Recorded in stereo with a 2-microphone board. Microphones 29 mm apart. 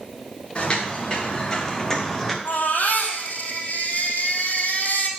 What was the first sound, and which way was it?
Footsteps, 35° left (ahead or behind).